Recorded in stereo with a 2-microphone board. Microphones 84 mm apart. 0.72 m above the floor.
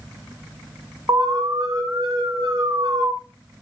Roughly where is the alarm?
Right.